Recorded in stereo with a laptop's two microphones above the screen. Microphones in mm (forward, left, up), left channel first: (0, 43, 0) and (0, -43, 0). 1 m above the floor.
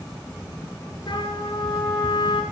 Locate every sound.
1.1 s a trumpet: 70° left (ahead or behind), 8 m